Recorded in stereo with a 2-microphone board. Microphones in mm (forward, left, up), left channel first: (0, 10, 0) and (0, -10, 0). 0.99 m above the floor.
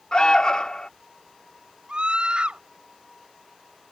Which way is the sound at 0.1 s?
40° left (ahead or behind).